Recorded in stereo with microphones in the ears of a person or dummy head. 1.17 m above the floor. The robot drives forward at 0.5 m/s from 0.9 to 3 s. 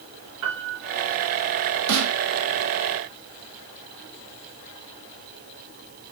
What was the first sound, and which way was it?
A piano, 75° right (ahead or behind).